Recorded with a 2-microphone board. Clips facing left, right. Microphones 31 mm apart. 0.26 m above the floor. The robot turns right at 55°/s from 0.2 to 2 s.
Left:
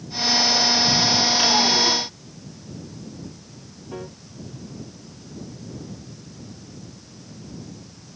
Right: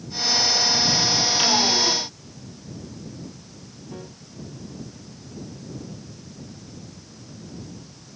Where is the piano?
25° left (ahead or behind).